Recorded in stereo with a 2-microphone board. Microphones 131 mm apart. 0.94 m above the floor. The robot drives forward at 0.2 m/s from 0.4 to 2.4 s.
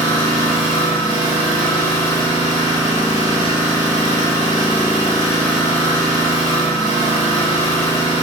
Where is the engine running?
45° left (ahead or behind), 1.8 m; by 8.2 s 40° left (ahead or behind), 2 m.